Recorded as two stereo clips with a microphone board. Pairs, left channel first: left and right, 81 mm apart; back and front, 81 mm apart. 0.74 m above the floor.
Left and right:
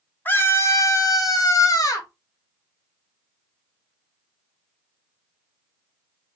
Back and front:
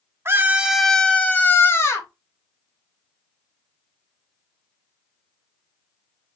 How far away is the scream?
About 0.7 m.